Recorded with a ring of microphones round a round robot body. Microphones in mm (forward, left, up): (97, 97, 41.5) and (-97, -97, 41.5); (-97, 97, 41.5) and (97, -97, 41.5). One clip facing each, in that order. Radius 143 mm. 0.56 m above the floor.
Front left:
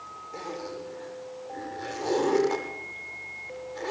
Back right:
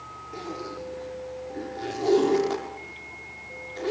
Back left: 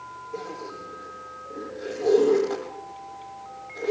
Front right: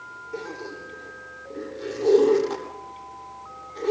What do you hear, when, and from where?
0.3 s a zipper: 115° right, 8 m